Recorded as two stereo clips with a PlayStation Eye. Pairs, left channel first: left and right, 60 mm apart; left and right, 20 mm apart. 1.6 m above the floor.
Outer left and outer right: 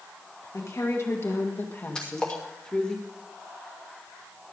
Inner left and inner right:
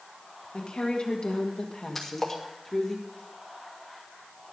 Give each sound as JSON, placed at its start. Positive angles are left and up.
{"t": 0.5, "sound": "a woman speaking", "side_deg": 65, "distance_m": 1.9}
{"t": 1.9, "sound": "a splash", "side_deg": 15, "distance_m": 2.5}